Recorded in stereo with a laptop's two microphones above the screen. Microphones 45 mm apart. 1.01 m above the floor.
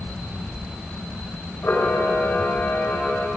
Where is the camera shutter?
60° left (ahead or behind), 4.5 m.